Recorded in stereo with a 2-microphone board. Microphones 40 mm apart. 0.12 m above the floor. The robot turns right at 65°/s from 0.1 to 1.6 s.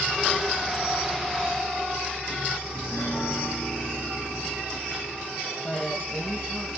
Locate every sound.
2.7 s a piano: 15° left (ahead or behind), 5.5 m
5.6 s a woman speaking: 5° left (ahead or behind), 6 m